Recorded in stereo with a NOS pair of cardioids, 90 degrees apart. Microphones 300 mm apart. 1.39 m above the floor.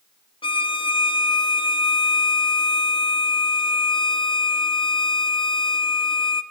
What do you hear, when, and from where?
0.4 s a violin: 15° left, 2.5 m